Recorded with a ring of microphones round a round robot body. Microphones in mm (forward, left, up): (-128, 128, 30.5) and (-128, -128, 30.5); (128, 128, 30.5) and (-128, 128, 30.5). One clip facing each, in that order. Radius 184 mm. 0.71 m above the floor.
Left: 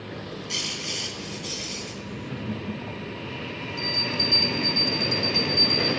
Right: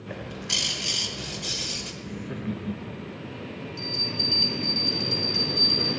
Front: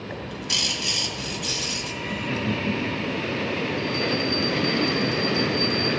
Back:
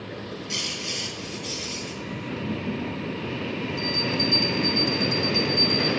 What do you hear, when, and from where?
0.1 s a bird: 55° right, 1.6 m
2.0 s laughter: 40° right, 1.3 m
3.8 s a bell: 155° right, 5 m